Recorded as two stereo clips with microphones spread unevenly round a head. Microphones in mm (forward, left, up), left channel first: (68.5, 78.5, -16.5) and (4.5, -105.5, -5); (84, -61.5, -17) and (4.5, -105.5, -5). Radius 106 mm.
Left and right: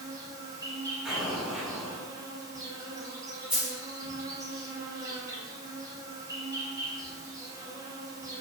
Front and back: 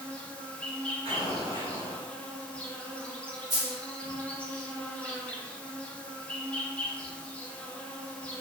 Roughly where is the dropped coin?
Behind.